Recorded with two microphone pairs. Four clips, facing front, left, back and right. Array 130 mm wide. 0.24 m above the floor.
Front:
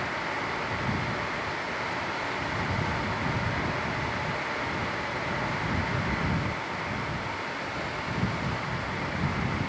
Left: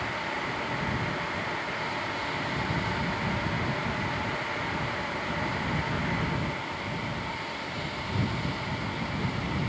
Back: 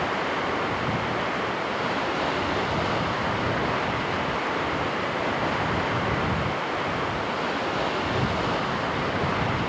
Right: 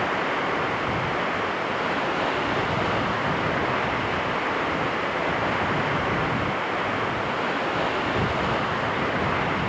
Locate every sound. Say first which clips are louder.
0.0 s running water: right 8 dB, back 6 dB; 125° right